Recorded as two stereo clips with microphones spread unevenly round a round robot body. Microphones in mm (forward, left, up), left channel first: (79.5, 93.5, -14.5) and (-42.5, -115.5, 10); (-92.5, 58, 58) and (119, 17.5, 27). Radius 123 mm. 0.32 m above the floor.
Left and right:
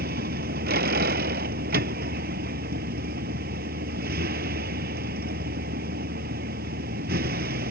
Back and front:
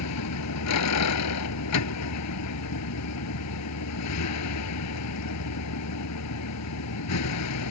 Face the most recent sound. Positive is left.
turn(degrees=-175)